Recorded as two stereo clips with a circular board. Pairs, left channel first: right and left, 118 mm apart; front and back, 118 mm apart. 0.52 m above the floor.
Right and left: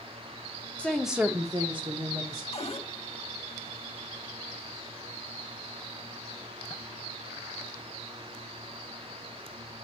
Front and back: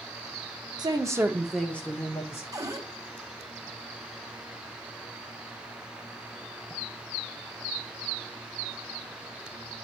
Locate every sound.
0.8 s a woman speaking: 160° right, 0.9 m; by 2.4 s 60° left, 1.6 m
2.5 s a cupboard door: 120° right, 0.8 m